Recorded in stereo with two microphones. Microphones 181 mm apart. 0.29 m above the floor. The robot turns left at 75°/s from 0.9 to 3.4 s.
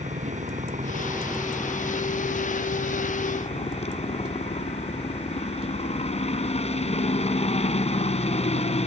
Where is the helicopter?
135° right; by 8.9 s 40° left.